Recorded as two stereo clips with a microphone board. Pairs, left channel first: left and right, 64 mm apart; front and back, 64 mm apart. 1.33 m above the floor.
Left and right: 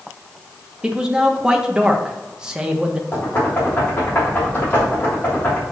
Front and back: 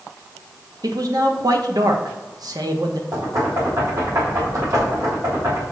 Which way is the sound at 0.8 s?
170° right.